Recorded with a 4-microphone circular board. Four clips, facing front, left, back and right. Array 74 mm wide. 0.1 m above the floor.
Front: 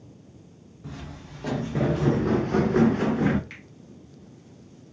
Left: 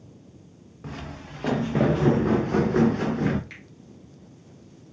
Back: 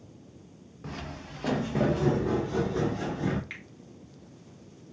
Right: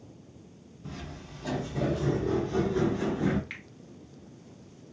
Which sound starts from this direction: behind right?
A finger snap, at 3.5 s.